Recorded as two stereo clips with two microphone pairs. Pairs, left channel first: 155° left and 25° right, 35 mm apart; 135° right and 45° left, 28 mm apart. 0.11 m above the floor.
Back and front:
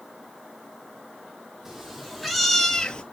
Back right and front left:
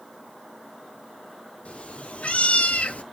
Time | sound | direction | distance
1.6 | a cat meowing | 100° right | 1.0 m